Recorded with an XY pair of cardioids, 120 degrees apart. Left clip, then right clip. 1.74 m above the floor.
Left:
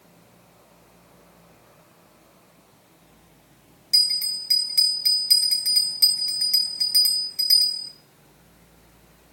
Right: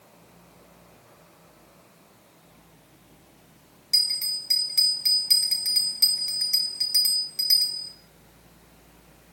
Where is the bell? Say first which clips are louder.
Left 3 dB; 5° left, 1.4 m.